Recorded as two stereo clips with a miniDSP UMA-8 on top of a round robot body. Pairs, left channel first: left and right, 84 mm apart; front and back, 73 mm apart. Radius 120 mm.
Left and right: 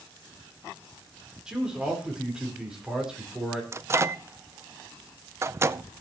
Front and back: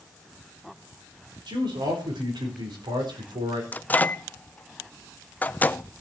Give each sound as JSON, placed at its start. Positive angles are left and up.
{"t": 1.5, "sound": "a man speaking", "azimuth_deg": -170, "distance_m": 4.0}
{"t": 3.7, "sound": "a microwave", "azimuth_deg": -55, "distance_m": 0.6}